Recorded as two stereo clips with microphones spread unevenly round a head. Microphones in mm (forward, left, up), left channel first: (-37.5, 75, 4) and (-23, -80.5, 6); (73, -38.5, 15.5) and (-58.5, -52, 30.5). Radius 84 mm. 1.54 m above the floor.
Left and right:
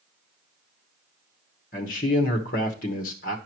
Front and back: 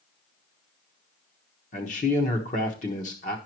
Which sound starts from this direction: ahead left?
A man speaking, at 1.7 s.